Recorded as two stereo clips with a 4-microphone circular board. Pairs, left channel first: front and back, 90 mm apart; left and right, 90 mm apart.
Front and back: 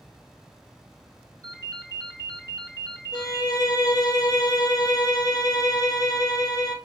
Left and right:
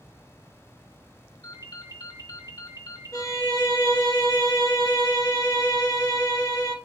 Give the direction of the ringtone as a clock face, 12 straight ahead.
8 o'clock.